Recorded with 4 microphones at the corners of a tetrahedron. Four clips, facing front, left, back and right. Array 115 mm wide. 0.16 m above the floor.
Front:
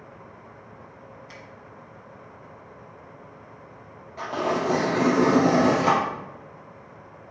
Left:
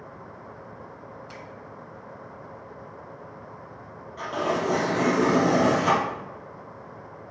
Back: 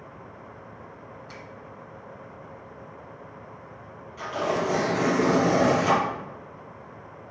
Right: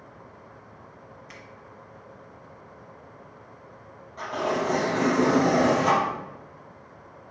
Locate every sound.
1.3 s a finger snap: 150° left, 1.1 m
4.2 s tearing paper: 20° left, 2.5 m